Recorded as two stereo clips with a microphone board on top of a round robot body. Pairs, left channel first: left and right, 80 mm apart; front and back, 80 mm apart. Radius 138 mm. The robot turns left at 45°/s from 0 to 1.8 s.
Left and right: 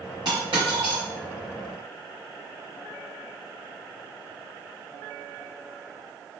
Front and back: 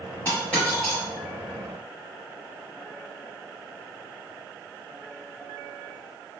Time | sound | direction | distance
0.2 | a dropped coin | 60° right | 0.9 m